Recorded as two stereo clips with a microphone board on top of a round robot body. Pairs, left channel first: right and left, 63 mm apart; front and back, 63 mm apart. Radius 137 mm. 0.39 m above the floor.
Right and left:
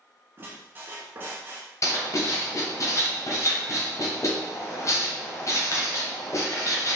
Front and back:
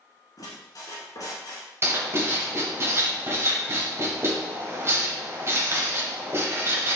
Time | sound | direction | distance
0.4 | a squeak | 30° left | 0.7 m
1.8 | writing | 130° right | 1.1 m